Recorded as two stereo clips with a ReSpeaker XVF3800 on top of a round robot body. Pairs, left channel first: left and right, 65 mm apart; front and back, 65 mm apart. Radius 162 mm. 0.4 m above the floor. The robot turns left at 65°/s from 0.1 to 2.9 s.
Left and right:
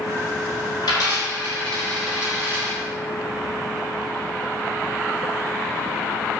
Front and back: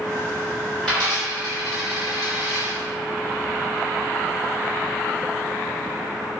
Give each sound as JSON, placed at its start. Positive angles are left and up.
{"t": 0.8, "sound": "a dropped coin", "azimuth_deg": 80, "distance_m": 1.2}